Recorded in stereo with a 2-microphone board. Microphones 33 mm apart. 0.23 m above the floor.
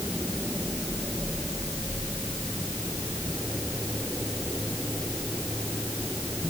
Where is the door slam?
No door slam in this recording.